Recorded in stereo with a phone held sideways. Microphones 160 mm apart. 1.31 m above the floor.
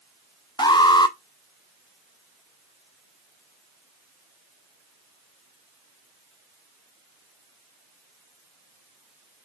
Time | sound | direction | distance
0.6 | an alarm | 25° left (ahead or behind) | 0.5 m